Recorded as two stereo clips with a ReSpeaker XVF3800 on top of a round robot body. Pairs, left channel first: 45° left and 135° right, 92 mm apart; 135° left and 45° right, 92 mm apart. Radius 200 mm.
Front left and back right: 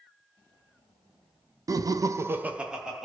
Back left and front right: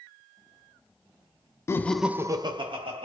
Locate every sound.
1.7 s laughter: 170° right, 0.6 m; by 3.1 s 45° right, 0.9 m